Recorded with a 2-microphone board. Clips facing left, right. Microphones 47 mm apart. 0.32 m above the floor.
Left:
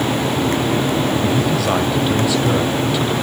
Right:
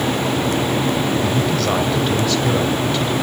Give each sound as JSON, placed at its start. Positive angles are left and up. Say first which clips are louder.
{"t": 1.2, "sound": "a man speaking", "louder": "left 1 dB", "side_deg": 10, "distance_m": 1.8}